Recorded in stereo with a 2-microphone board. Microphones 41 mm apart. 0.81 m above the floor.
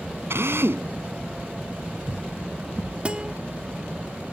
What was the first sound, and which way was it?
A drill, 80° right.